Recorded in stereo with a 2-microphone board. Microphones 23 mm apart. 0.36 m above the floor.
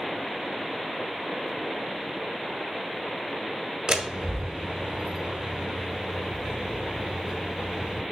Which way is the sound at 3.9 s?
45° right (ahead or behind).